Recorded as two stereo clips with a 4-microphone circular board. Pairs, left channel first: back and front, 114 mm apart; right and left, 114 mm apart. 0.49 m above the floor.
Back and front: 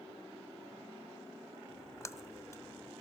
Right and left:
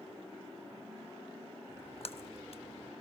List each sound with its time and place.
1.7 s a splash: 120° right, 0.5 m